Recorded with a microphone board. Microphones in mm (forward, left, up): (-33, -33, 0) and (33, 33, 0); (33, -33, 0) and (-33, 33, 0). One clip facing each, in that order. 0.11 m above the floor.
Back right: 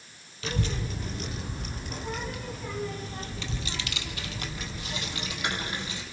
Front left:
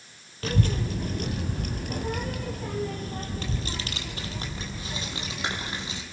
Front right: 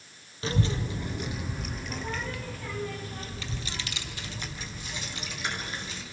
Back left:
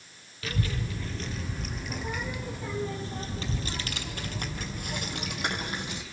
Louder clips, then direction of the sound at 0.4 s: Front left 5 dB, front right 4 dB; 10° left.